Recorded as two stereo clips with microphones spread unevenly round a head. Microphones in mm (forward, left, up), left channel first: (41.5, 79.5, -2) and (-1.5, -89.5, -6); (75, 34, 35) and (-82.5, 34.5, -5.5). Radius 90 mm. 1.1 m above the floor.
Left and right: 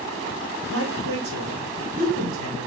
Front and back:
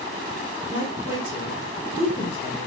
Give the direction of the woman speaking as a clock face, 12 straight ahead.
4 o'clock.